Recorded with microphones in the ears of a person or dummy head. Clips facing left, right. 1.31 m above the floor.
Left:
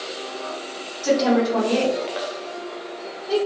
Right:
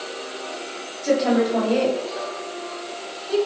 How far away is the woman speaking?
About 1.6 m.